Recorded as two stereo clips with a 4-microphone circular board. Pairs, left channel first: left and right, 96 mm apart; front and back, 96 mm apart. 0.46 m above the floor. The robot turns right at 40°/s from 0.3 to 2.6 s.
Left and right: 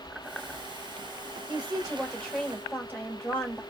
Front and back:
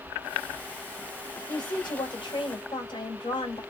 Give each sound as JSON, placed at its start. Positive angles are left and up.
{"t": 1.5, "sound": "a woman speaking", "azimuth_deg": -20, "distance_m": 1.9}